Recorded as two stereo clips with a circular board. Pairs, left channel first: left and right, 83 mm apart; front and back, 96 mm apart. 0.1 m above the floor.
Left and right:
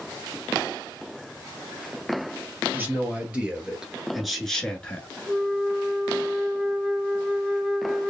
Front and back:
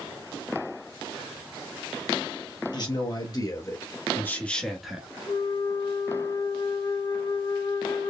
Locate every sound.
2.7 s a man speaking: 25° right, 1.9 m; by 5.1 s 120° left, 1.1 m
5.3 s a flute: straight ahead, 1.6 m